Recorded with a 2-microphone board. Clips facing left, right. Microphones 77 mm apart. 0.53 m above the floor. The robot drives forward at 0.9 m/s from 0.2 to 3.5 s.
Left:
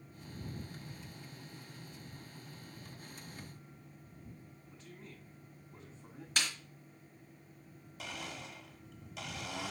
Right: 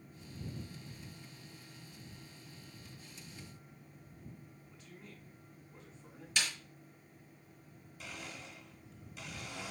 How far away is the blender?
About 1.5 m.